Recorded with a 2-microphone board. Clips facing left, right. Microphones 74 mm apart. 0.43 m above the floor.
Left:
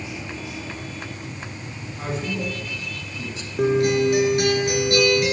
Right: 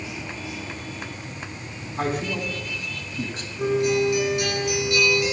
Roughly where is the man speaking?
Right.